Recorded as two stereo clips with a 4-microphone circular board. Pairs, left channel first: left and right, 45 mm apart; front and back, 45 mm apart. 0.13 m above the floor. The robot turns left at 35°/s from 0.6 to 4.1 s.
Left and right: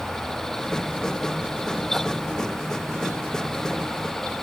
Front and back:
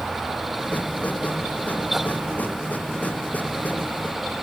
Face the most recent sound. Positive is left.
No sound to turn to.